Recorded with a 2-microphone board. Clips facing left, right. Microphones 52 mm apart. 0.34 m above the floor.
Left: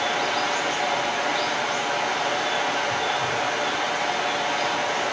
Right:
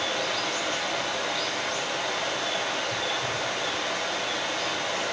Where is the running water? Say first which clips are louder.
Left 5 dB; 75° left (ahead or behind), 5.5 m.